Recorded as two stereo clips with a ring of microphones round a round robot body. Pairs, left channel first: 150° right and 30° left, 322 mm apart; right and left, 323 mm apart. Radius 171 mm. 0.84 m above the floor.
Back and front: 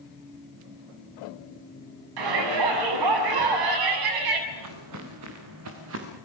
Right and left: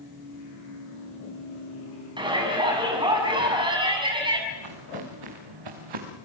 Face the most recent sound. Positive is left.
turn(degrees=80)